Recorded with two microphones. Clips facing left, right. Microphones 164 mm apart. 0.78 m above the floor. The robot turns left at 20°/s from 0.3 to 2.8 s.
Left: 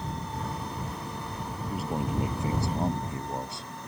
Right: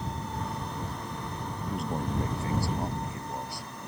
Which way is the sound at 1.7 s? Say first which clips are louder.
Left 1 dB; centre (ahead or behind).